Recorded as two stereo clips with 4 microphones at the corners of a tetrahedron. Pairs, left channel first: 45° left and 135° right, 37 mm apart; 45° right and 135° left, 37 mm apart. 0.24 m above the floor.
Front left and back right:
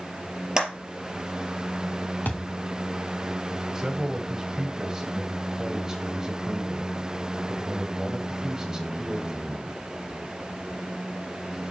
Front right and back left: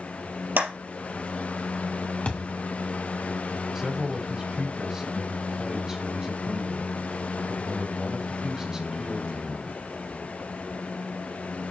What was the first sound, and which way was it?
A clap, 150° left.